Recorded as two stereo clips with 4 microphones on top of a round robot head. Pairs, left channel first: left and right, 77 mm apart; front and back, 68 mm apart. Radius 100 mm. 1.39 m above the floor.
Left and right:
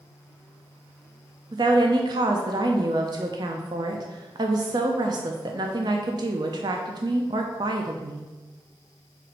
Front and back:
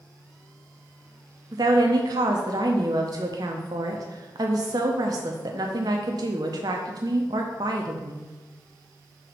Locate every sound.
1.5 s a woman speaking: 135° right, 0.5 m